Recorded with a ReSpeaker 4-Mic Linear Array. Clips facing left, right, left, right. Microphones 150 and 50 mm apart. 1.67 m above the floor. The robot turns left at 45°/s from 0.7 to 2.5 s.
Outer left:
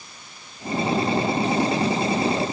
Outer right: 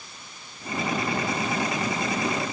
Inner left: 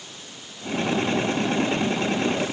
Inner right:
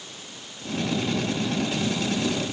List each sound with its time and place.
Only background noise.